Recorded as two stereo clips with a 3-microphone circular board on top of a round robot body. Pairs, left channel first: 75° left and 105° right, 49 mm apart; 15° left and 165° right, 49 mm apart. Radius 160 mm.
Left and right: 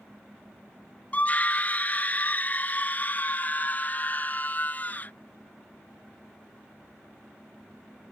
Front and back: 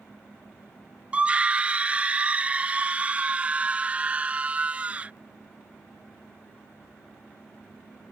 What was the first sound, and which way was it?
A scream, 130° left.